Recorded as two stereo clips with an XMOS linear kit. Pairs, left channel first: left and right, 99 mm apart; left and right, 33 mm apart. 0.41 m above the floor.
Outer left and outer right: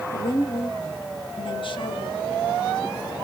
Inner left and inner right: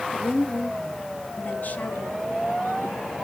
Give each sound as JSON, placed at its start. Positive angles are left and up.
{"t": 0.1, "sound": "a woman speaking", "side_deg": 60, "distance_m": 1.8}